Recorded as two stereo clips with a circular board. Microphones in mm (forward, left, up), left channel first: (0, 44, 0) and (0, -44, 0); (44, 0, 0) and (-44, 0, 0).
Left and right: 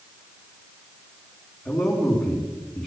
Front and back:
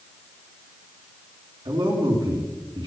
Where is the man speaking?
175° right, 3.5 m.